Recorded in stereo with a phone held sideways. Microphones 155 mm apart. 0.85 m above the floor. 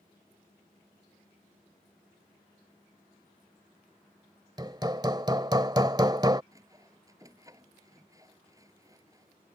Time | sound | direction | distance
4.6 | hammering | 25° right (ahead or behind) | ?
6.5 | sawing | 20° right (ahead or behind) | ?